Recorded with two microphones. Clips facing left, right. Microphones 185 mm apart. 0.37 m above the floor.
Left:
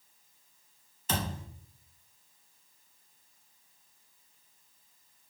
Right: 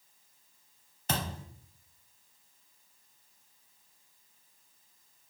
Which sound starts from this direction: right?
A thud, at 1.1 s.